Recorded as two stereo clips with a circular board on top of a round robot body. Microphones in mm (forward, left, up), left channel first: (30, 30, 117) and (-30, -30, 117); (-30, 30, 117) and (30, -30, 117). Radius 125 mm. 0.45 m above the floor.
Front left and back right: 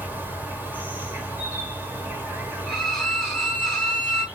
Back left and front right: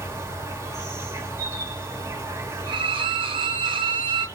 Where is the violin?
40° right, 1.2 m.